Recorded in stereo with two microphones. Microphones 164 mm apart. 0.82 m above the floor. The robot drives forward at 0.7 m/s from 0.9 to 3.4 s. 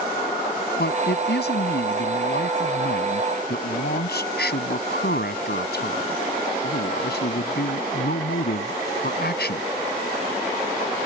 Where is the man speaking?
85° left; by 9.6 s 75° left (ahead or behind).